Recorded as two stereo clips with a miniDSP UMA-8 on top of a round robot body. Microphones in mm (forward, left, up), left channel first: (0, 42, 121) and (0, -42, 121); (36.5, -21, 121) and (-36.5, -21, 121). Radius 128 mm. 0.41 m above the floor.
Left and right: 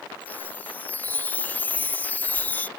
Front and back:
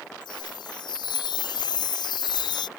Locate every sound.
0.2 s a chime: 20° left